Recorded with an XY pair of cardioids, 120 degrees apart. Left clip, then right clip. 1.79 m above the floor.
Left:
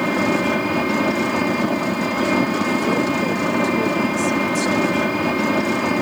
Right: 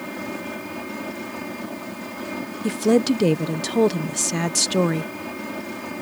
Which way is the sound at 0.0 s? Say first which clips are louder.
Left 12 dB; 65° left.